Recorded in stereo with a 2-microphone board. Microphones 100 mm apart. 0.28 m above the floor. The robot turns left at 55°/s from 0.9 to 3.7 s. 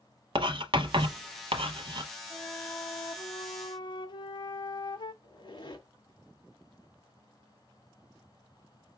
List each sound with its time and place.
0.3 s writing: 55° right (ahead or behind), 0.7 m; by 2.1 s 45° right (ahead or behind), 0.7 m
2.3 s a flute: 155° left, 0.5 m; by 5.1 s 75° left, 0.5 m
5.2 s a squeak: 50° left (ahead or behind), 1.5 m